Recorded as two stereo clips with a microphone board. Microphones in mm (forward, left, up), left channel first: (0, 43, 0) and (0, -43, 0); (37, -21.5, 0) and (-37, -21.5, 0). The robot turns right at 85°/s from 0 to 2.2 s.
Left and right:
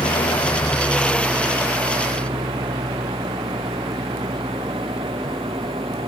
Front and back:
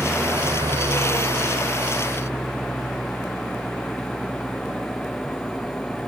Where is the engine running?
95° left; by 6.1 s 80° right.